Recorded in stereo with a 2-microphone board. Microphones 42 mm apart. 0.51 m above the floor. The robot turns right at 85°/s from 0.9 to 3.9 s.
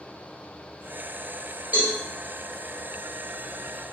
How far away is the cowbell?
About 1.5 m.